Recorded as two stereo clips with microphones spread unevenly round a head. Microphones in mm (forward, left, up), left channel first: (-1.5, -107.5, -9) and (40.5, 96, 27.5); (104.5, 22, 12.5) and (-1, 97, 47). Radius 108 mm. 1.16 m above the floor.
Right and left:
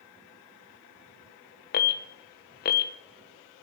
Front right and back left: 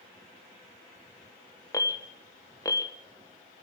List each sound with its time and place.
1.7 s an alarm: 85° right, 0.9 m